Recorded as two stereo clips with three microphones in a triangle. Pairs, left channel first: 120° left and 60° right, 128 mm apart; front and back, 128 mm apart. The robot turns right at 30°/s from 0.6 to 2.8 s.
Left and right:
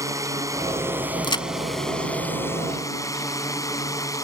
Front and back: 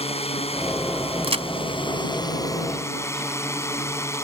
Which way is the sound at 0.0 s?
5° right.